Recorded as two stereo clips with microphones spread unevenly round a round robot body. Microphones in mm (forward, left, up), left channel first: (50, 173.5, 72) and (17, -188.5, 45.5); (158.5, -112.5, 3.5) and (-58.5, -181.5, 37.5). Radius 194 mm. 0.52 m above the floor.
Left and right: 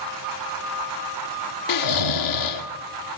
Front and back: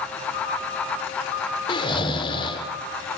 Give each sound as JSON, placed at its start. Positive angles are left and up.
{"t": 1.7, "sound": "snoring", "azimuth_deg": 80, "distance_m": 1.4}